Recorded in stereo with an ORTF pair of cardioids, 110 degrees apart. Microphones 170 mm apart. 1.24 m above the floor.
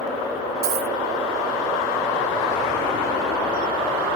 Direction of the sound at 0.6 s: 70° right.